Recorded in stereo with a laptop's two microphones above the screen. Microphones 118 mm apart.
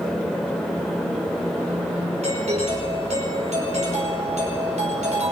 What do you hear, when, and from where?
0.0 s a fan: 5° left (ahead or behind), 3 m
2.2 s a doorbell: 70° right (ahead or behind), 4 m